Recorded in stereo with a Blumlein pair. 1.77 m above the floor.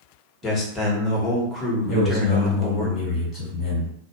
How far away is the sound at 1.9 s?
About 1.4 m.